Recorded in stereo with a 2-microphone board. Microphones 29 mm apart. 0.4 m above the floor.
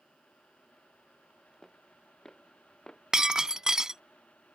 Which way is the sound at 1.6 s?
10° left (ahead or behind).